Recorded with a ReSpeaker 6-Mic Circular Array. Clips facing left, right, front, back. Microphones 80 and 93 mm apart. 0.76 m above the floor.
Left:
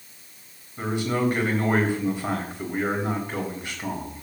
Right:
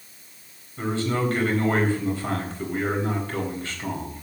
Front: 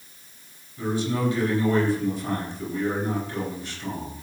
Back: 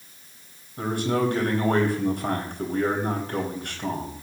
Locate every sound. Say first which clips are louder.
0.8 s a man speaking: even, back 1 dB; 165° left, 4 m